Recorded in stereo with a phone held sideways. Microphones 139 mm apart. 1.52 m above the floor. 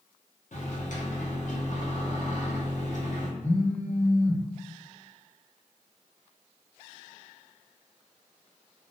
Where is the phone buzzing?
50° left (ahead or behind), 1.5 m.